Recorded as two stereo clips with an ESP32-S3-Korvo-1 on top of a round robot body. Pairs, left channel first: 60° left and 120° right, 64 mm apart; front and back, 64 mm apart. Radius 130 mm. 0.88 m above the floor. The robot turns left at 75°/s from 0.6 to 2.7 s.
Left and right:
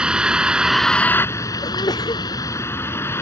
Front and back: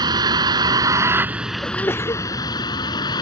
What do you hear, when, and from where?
0.0 s a vehicle: 165° left; by 3.2 s 5° left
1.6 s a sneeze: 70° left; by 2.2 s 25° left